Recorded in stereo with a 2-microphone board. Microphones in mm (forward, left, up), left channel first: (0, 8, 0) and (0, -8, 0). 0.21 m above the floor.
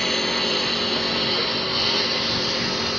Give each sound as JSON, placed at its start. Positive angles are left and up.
{"t": 0.0, "sound": "a lawn mower", "side_deg": 10}